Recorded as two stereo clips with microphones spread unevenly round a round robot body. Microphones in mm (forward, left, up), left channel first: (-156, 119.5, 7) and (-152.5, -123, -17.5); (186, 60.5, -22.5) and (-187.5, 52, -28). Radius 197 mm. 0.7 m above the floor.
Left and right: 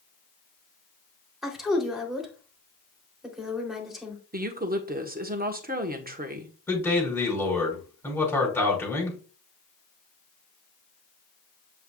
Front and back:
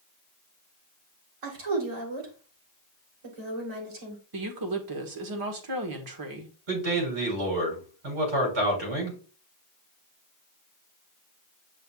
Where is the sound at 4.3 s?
140° right, 1.6 m.